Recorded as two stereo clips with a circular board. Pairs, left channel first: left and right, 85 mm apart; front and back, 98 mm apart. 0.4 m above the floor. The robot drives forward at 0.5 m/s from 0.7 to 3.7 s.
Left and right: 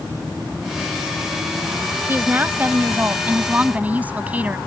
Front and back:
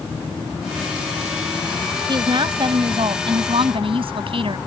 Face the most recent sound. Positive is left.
turn(degrees=-160)